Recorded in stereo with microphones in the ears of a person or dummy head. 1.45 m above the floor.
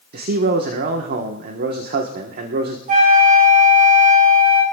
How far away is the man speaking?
About 1.3 m.